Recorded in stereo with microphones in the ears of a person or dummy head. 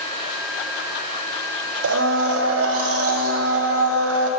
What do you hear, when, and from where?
1.8 s a blender: 75° right (ahead or behind), 0.8 m